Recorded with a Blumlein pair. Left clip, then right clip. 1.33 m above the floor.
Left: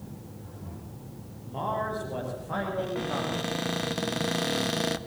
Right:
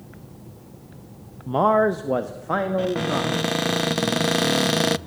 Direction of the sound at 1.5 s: 55° right.